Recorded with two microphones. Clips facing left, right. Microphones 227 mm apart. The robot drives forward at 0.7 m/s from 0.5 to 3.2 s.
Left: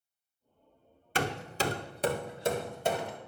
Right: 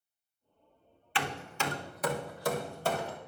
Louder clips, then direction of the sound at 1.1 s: Left 4 dB; 45° left (ahead or behind).